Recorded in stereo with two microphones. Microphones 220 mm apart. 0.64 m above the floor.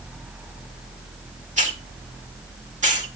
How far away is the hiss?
About 1.6 m.